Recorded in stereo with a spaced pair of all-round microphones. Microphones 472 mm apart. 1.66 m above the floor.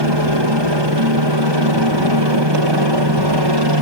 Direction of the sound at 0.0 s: 65° right (ahead or behind).